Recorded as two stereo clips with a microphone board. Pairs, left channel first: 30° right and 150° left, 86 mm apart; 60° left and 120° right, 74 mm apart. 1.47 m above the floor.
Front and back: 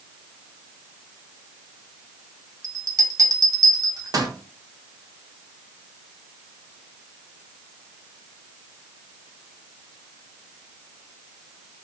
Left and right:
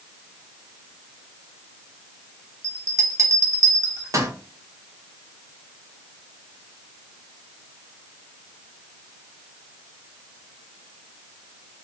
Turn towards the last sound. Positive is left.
turn(degrees=-165)